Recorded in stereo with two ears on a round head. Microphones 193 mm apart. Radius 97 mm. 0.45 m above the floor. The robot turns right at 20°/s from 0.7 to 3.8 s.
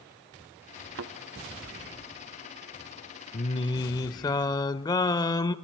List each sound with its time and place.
0.9 s a thud: 60° right (ahead or behind), 0.7 m
3.3 s singing: 25° left (ahead or behind), 0.6 m; by 5.5 s 20° left (ahead or behind), 0.6 m